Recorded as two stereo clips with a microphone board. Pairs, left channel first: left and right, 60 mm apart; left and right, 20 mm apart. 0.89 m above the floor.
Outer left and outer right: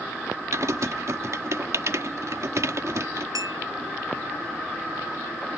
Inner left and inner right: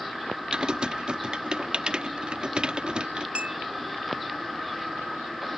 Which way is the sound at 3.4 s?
85° right.